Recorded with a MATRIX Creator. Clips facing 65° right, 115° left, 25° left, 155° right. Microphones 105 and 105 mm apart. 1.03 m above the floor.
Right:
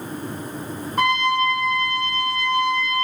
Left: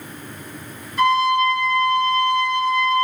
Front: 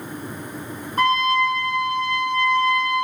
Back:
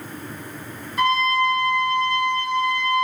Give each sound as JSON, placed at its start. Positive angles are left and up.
{"t": 1.0, "sound": "a trumpet", "azimuth_deg": -25, "distance_m": 1.6}